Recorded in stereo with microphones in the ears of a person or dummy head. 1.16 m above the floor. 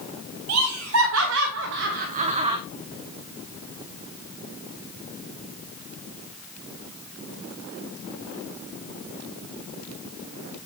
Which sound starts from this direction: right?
Laughter, at 0.5 s.